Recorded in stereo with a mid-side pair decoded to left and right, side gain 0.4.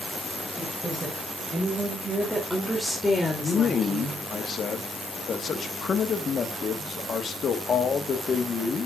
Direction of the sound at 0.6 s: 15° right.